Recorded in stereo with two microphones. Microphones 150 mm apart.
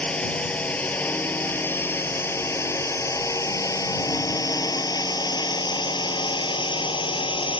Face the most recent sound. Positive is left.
turn(degrees=35)  # may be behind; listen again after turning